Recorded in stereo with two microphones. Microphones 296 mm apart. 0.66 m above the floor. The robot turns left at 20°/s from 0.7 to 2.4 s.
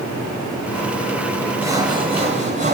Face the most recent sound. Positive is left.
turn(degrees=-25)  # may be behind; listen again after turning